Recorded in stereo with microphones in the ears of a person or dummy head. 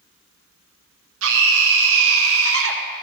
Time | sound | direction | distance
1.2 | a scream | 65° right (ahead or behind) | 0.9 m